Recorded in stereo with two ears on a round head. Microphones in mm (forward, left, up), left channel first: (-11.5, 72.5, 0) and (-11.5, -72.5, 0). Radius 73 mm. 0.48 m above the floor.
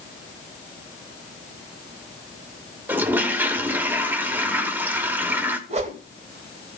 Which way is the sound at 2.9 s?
15° right (ahead or behind).